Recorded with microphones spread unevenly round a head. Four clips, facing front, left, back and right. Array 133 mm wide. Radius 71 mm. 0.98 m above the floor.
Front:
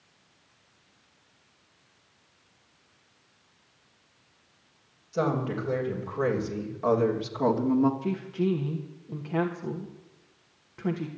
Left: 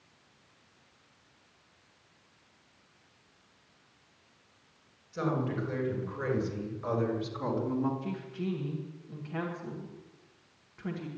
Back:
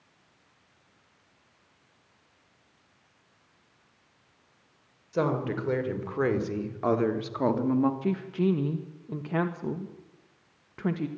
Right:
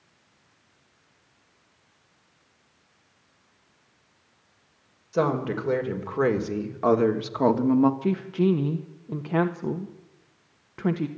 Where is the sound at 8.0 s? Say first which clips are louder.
Right 13 dB, back 1 dB; 110° right, 1.2 m.